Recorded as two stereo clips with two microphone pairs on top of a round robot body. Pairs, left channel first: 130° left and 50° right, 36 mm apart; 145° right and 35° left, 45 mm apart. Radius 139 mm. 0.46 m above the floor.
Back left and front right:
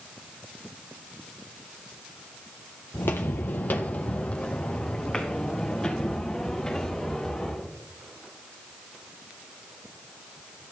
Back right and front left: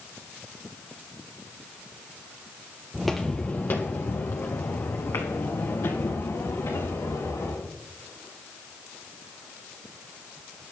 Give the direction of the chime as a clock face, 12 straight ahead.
No chime in this recording.